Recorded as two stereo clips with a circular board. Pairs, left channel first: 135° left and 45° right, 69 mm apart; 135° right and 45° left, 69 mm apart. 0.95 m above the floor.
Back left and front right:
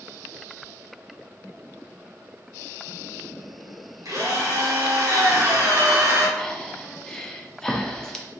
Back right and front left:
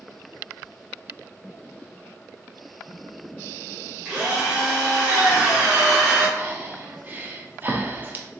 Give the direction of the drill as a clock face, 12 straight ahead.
1 o'clock.